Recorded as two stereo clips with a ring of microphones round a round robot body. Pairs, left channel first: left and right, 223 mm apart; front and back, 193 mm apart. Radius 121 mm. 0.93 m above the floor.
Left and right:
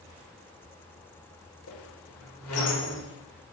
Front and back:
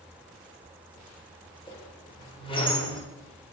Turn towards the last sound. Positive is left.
turn(degrees=65)